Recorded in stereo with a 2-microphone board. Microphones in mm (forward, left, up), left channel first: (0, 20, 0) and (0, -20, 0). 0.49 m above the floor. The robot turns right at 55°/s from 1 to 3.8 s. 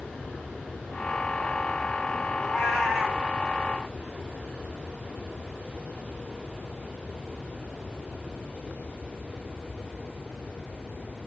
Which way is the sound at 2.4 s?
155° left.